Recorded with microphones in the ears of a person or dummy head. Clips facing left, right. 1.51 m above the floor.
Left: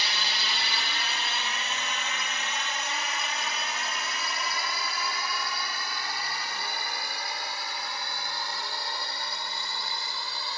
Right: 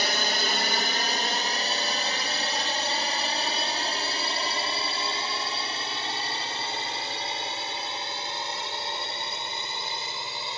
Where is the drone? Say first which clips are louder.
Right 7 dB; 40° right (ahead or behind); by 10.6 s 20° right (ahead or behind).